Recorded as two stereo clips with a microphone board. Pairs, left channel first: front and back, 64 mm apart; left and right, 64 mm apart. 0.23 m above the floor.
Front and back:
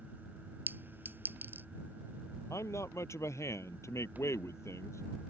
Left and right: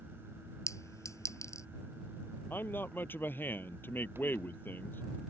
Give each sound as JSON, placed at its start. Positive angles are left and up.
{"t": 0.7, "sound": "a clink", "azimuth_deg": 125}
{"t": 2.5, "sound": "a man speaking", "azimuth_deg": 35}